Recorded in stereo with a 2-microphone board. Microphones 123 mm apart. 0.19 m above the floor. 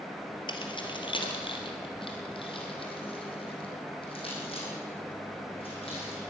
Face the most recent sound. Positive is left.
turn(degrees=50)  # may be behind; listen again after turning